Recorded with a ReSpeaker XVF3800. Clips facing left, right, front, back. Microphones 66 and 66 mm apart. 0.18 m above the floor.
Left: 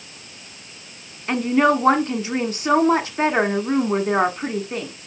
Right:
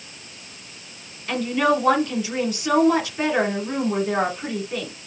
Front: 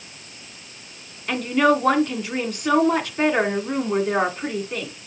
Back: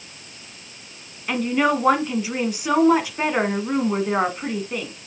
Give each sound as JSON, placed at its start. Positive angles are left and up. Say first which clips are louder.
{"t": 1.3, "sound": "a woman speaking", "louder": "left 3 dB, front 2 dB", "azimuth_deg": 105, "distance_m": 1.5}